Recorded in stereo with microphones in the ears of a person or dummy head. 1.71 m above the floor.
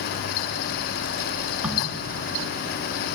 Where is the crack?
5° right (ahead or behind), 3 m.